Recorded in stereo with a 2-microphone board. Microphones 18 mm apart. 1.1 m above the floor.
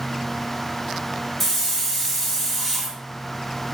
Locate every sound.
1.4 s a hiss: 5° left (ahead or behind), 0.7 m